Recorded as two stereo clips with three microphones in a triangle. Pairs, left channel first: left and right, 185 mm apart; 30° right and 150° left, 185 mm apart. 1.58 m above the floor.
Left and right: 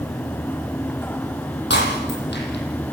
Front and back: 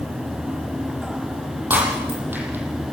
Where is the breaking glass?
70° left, 9.5 m.